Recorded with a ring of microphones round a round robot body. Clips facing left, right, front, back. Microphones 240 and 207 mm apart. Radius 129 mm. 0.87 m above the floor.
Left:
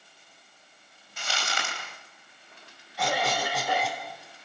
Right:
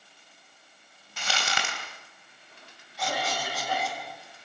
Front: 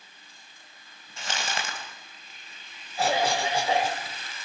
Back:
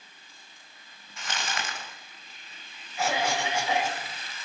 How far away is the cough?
About 4.5 m.